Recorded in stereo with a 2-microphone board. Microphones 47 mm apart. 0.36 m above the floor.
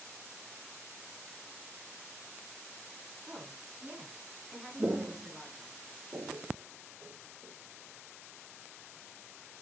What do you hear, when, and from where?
3.3 s a woman speaking: 30° right (ahead or behind), 3.5 m; by 5.7 s 5° left (ahead or behind), 3 m
4.8 s footsteps: 35° right (ahead or behind), 0.5 m; by 7.5 s 80° right, 1.9 m